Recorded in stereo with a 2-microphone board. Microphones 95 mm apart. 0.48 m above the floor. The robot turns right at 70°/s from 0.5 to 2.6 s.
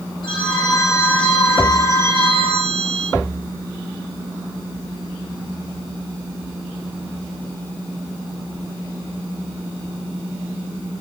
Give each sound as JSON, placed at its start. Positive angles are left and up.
{"t": 0.2, "sound": "a phone ringing", "azimuth_deg": 125, "distance_m": 8.0}